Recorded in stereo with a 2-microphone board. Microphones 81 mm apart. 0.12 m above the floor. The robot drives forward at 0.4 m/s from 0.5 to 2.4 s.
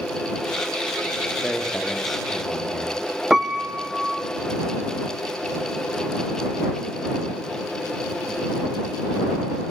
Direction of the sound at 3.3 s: 5° right (ahead or behind).